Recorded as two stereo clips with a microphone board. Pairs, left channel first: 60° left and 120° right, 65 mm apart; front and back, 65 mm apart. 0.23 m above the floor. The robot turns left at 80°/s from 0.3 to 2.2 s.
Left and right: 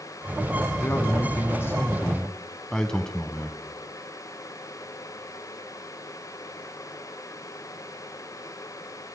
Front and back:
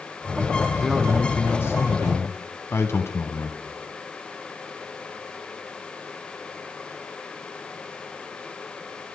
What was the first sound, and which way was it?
A man speaking, 100° left.